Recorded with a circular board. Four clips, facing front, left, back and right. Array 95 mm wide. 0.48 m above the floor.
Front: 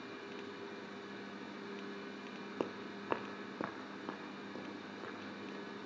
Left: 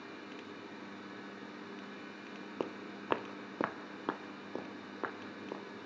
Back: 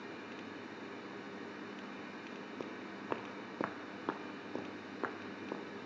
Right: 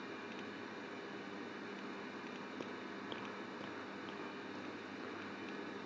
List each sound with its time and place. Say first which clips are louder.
2.6 s footsteps: left 5 dB, front 7 dB; 50° left, 0.7 m; by 5.6 s 135° left, 1.7 m